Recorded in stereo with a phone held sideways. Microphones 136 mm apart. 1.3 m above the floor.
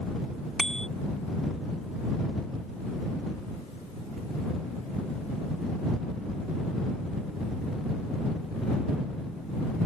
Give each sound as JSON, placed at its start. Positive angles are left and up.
{"t": 0.6, "sound": "a bicycle bell", "side_deg": 5}